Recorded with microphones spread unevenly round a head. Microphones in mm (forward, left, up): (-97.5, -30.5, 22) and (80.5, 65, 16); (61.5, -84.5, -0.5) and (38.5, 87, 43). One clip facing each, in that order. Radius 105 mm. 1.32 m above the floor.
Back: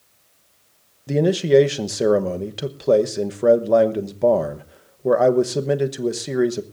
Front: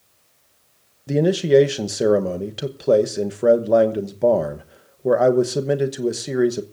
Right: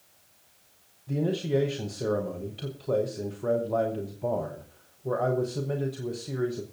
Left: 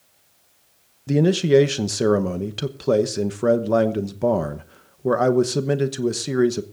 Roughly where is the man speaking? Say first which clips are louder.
Even, left 11 dB; behind left.